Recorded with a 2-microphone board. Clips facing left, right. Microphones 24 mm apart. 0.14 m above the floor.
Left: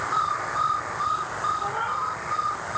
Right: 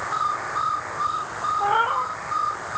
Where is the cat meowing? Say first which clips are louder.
Right 6 dB; 80° right, 1.7 m.